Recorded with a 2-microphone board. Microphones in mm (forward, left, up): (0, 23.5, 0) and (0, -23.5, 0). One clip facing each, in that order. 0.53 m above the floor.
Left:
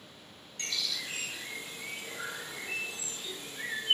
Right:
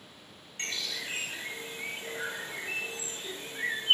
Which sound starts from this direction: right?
A bird, at 0.6 s.